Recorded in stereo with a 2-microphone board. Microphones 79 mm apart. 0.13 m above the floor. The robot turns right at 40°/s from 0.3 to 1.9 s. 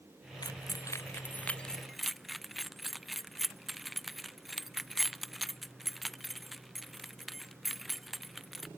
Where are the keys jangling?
60° left (ahead or behind); by 8.7 s centre (ahead or behind).